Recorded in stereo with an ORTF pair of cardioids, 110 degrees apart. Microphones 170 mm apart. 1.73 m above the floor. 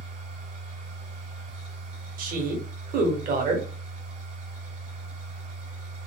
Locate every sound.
0.0 s a machine running: 50° right, 1.1 m
2.2 s a woman speaking: 60° right, 0.9 m